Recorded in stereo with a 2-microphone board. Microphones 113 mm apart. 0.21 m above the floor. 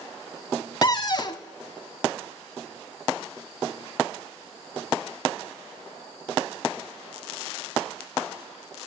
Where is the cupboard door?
40° left (ahead or behind), 0.5 m.